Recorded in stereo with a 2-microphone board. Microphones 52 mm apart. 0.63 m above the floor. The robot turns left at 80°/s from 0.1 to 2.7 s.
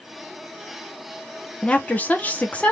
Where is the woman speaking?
135° left, 0.8 m; by 2.7 s 50° left, 0.8 m.